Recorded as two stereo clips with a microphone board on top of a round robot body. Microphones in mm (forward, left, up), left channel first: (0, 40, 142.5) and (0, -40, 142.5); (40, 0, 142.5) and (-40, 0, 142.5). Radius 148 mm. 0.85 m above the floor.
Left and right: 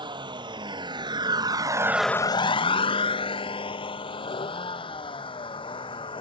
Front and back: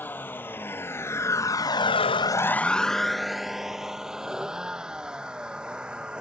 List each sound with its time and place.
0.0 s a vehicle: 70° right; by 6.2 s 100° left